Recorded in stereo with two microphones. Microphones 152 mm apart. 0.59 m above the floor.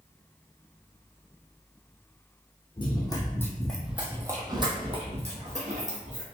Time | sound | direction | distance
2.8 | running footsteps | 35° left (ahead or behind) | 1.0 m